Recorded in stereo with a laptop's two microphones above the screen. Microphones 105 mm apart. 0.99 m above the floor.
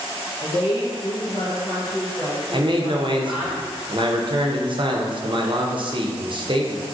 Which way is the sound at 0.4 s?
45° left (ahead or behind).